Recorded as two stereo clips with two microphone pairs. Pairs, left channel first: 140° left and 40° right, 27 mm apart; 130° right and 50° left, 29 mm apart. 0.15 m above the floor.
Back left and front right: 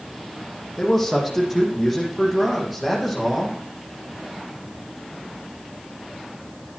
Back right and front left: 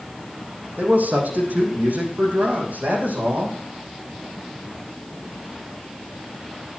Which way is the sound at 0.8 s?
50° left.